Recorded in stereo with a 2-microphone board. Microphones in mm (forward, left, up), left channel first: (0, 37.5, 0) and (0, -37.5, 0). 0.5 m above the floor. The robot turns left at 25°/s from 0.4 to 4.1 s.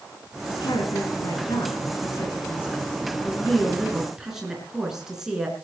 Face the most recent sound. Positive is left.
turn(degrees=-5)